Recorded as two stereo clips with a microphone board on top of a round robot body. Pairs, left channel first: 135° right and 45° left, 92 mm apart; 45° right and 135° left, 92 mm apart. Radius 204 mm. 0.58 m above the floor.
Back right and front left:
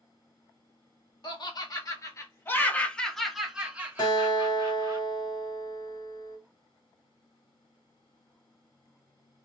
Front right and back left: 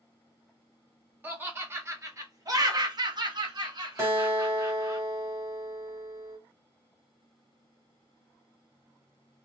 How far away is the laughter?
About 1.5 m.